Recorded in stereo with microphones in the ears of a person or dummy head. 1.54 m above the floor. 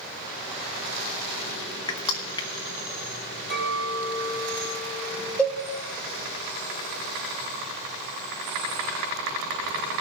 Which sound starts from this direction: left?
Crushing, at 1.9 s.